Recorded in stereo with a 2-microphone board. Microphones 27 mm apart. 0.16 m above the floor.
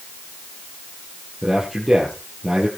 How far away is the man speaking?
About 5.5 m.